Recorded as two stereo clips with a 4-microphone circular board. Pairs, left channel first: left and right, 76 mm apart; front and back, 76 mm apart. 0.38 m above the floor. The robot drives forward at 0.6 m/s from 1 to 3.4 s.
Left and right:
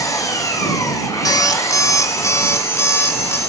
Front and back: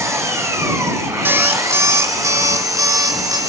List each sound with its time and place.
0.0 s an engine running: 130° left, 4.5 m; by 3.5 s 145° left, 5.5 m
1.2 s an alarm clock: 120° left, 1.7 m; by 3.4 s 145° left, 2.5 m